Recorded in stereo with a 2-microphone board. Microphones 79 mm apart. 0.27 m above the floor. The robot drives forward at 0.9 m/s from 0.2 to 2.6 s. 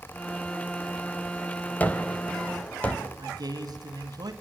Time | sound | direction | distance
1.8 | a gunshot | 20° left (ahead or behind) | 1.3 m
3.2 | a man speaking | 55° right (ahead or behind) | 2 m